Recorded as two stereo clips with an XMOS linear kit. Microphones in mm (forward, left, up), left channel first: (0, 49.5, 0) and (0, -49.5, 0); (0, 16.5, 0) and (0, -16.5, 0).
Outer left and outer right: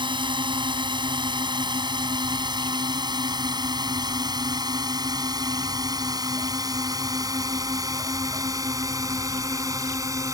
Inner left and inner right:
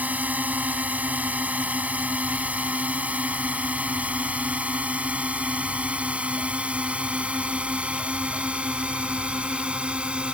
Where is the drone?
55° right (ahead or behind); by 10.3 s 35° right (ahead or behind).